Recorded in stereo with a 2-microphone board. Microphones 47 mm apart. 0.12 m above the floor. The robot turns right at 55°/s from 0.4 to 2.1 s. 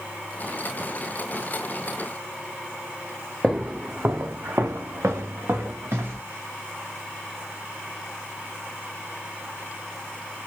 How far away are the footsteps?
About 0.7 m.